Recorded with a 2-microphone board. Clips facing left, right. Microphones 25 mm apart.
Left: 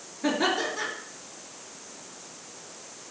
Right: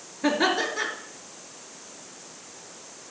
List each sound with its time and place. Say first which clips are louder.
0.2 s laughter: right 2 dB; 25° right (ahead or behind), 4 m